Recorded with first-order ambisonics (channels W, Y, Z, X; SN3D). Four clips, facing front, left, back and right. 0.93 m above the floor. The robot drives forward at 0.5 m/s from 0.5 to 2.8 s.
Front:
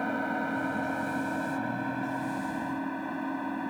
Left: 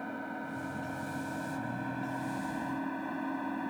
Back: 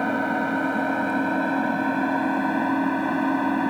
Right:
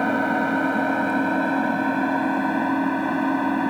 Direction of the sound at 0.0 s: 120° right.